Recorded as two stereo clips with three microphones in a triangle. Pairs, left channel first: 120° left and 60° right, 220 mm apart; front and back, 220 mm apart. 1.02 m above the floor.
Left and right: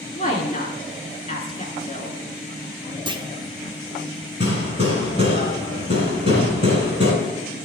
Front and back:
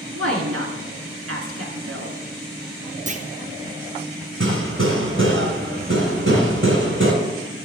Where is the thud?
110° left, 4 m.